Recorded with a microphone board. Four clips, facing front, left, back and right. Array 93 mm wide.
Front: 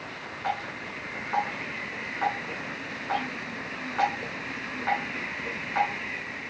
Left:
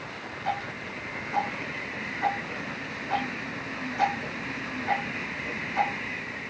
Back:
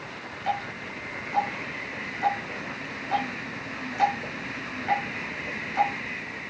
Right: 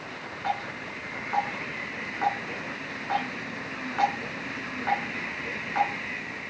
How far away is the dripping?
About 9 m.